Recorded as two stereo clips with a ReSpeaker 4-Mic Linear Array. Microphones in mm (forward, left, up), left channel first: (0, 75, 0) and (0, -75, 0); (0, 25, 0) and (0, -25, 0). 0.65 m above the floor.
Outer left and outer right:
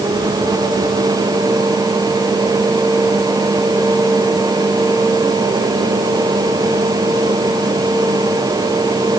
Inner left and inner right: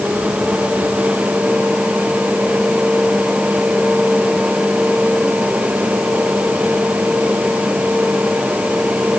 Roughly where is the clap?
I don't hear a clap.